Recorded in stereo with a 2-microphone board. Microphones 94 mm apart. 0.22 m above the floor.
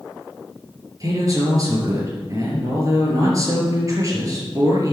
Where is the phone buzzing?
I don't hear a phone buzzing.